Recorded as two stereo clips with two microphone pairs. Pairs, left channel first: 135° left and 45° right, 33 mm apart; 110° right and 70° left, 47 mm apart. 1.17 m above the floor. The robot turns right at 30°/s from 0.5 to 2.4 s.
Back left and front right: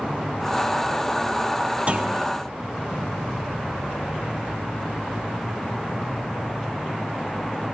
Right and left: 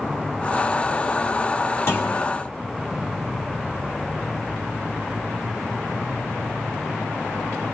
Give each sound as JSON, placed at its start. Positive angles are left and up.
{"t": 1.9, "sound": "a clunk", "azimuth_deg": -90, "distance_m": 2.0}